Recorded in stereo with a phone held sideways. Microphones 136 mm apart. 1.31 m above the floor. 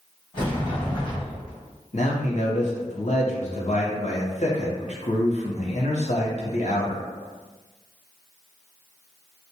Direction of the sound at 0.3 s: 35° left (ahead or behind).